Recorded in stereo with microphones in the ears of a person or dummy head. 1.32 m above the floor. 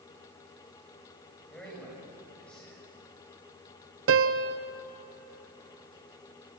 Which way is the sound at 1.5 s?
15° left (ahead or behind).